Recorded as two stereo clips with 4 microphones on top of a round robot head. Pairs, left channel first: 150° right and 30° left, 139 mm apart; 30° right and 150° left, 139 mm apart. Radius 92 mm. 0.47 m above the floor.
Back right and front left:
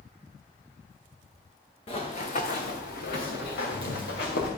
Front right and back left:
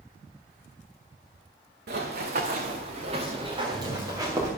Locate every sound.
1.9 s running footsteps: 160° left, 2.5 m; by 4.5 s 140° right, 3.5 m